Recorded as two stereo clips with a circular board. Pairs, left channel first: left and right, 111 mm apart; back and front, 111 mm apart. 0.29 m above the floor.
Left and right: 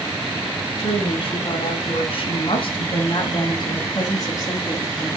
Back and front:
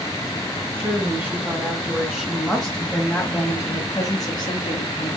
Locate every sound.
0.8 s a woman speaking: 60° left, 3 m; by 5.2 s 160° left, 2.5 m